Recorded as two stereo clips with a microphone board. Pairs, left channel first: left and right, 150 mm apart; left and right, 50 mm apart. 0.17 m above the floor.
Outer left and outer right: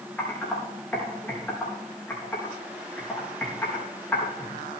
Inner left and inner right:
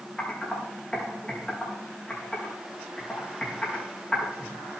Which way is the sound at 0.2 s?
10° left (ahead or behind).